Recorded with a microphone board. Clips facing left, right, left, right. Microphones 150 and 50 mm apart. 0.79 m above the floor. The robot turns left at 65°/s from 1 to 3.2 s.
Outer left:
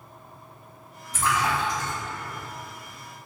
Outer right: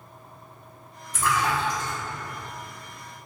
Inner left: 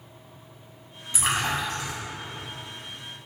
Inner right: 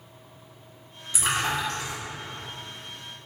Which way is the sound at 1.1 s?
25° left (ahead or behind).